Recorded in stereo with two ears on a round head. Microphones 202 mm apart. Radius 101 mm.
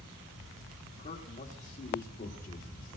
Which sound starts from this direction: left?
A man speaking, at 1.0 s.